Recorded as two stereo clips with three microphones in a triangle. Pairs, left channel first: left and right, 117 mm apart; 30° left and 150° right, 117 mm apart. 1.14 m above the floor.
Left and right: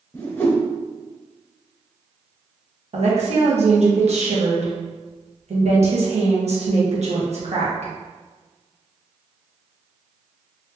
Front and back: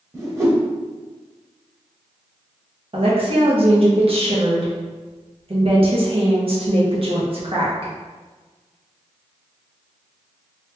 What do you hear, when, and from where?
0.1 s a whoosh: 155° left, 0.9 m
2.9 s a woman speaking: 110° right, 1.2 m